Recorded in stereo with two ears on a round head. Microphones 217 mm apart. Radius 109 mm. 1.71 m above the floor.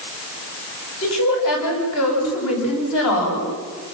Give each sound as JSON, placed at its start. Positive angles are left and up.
{"t": 1.0, "sound": "a woman speaking", "side_deg": 60, "distance_m": 9.5}